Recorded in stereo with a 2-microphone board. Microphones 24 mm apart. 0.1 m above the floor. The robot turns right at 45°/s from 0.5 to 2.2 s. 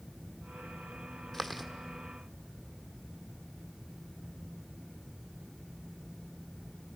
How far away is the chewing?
About 1.2 m.